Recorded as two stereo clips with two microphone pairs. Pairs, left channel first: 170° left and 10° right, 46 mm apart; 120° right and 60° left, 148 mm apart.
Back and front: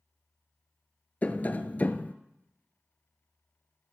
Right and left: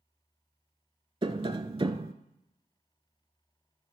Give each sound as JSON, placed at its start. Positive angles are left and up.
{"t": 1.2, "sound": "tapping", "azimuth_deg": 110, "distance_m": 0.5}